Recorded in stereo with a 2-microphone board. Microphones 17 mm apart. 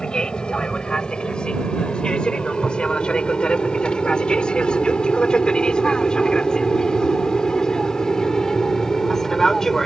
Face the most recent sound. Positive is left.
turn(degrees=20)  # may be behind; listen again after turning